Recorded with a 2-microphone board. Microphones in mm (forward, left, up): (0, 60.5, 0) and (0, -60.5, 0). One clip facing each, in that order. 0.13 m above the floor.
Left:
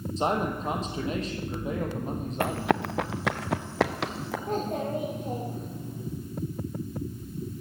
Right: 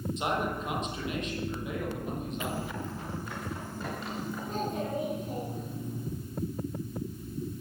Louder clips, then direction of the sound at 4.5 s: Left 4 dB; 60° left (ahead or behind).